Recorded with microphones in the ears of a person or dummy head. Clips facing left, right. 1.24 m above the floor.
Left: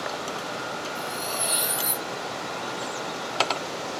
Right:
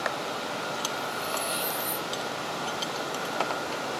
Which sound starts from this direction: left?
Cutlery clinking, at 0.9 s.